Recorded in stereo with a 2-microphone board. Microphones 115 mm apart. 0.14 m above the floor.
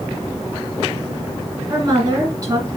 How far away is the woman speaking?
About 1.7 m.